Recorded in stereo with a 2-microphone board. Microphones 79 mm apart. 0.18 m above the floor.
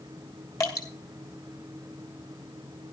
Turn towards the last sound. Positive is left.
turn(degrees=45)  # may be behind; listen again after turning